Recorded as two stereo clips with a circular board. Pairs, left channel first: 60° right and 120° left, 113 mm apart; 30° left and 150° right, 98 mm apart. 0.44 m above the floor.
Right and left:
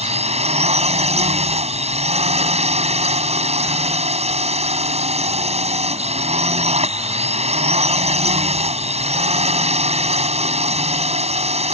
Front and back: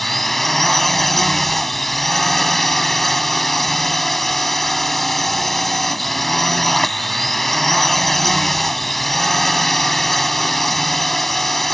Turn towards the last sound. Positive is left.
turn(degrees=120)